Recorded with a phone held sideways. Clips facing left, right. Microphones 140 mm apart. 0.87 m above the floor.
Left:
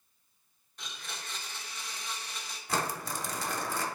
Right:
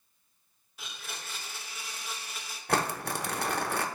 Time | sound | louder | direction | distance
0.8 | a blender | even | 5° right (ahead or behind) | 0.9 m
2.7 | crumpling | right 4 dB | 60° right (ahead or behind) | 0.7 m